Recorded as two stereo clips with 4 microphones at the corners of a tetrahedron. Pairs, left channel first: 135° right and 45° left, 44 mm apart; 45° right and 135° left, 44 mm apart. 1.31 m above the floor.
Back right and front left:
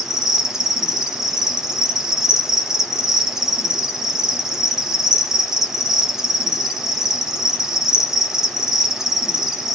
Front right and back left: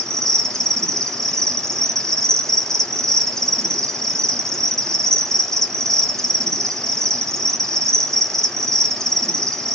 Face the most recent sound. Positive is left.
turn(degrees=-15)